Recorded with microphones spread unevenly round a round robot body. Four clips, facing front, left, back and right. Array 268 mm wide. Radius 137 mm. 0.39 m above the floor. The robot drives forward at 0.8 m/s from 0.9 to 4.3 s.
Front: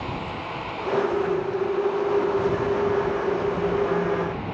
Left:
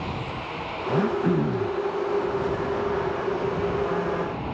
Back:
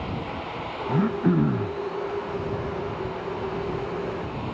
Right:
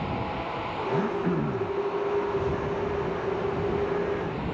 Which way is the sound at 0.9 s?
165° left.